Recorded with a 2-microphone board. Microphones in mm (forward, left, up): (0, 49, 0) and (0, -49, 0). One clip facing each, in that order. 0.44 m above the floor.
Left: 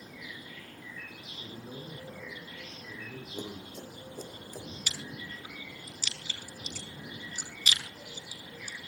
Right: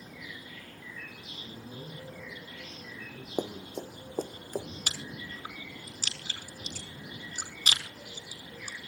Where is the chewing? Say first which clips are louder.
Right 1 dB; 45° right (ahead or behind), 5 m.